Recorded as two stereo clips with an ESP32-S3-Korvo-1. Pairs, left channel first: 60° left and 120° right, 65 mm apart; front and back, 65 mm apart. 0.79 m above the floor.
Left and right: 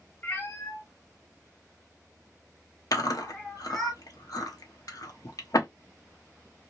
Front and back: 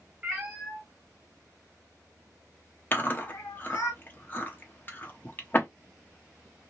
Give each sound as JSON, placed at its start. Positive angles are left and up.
{"t": 0.2, "sound": "a cat meowing", "azimuth_deg": 110, "distance_m": 1.0}
{"t": 2.9, "sound": "chewing", "azimuth_deg": 55, "distance_m": 0.8}